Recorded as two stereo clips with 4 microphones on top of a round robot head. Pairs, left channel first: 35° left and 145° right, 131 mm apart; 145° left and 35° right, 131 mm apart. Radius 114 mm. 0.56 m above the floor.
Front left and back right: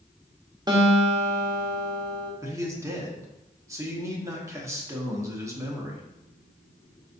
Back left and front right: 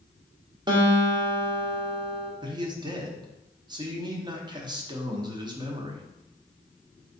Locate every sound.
0.7 s a guitar: 90° right, 1.1 m
2.4 s a man speaking: 85° right, 1.1 m